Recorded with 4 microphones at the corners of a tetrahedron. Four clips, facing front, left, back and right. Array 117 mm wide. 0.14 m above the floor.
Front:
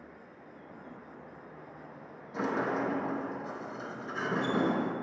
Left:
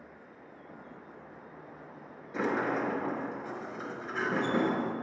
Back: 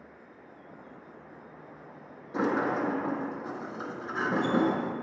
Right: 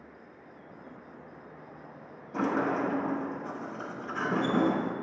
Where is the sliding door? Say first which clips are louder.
Right 2 dB, back 3 dB; 170° right, 0.6 m.